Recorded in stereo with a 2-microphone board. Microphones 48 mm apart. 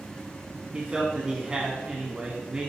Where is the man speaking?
20° right (ahead or behind), 1.5 m.